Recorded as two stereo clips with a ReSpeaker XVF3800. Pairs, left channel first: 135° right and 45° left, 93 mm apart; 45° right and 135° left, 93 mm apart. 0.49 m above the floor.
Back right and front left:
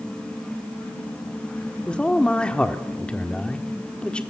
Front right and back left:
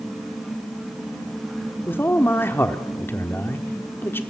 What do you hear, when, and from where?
1.9 s a man speaking: 70° right, 1.3 m